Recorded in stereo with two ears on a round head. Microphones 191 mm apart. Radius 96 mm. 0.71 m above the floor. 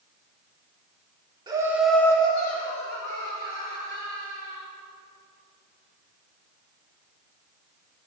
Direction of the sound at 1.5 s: 20° right (ahead or behind).